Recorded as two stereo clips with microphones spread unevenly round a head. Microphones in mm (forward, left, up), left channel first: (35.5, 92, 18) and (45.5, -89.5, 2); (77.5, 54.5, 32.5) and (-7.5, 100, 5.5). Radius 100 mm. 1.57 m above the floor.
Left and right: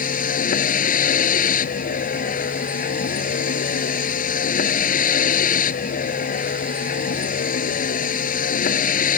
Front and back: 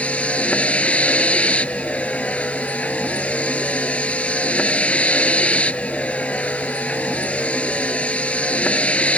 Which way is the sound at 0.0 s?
50° left.